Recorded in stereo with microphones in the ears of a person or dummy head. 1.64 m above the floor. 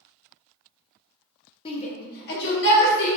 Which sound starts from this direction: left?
A shout, at 1.6 s.